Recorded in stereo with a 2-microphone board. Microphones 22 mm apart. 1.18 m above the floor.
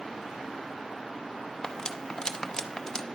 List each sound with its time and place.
1.6 s cutlery clinking: 30° left (ahead or behind), 0.5 m